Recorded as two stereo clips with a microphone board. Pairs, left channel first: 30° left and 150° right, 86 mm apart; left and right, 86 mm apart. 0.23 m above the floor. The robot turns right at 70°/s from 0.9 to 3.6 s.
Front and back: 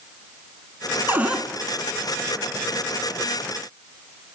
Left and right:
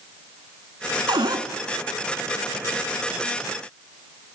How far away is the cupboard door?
About 0.7 m.